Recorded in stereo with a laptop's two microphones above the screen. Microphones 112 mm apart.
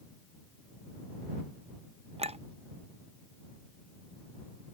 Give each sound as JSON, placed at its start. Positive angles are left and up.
{"t": 2.2, "sound": "a clink", "side_deg": -65}